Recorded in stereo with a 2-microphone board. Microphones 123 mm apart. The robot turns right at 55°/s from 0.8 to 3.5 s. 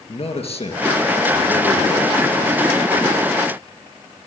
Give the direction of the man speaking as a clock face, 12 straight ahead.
10 o'clock.